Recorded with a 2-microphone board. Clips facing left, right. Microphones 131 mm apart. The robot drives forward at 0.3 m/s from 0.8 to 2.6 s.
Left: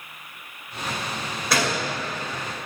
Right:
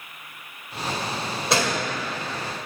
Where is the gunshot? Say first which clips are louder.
Even; 25° right (ahead or behind), 1.7 m.